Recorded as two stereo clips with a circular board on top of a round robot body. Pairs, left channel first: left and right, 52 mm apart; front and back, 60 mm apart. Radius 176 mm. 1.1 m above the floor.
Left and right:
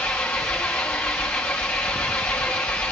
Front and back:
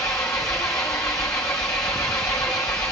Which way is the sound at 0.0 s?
40° left.